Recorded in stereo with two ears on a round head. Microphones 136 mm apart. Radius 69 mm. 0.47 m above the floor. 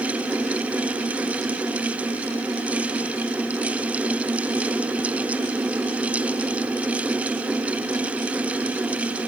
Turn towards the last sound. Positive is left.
No sound to turn to.